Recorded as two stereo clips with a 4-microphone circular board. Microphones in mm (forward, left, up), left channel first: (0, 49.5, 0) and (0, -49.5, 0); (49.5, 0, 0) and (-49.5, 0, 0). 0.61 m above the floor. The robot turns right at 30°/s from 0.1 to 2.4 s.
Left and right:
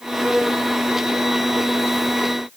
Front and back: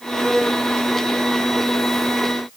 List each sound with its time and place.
Only background noise.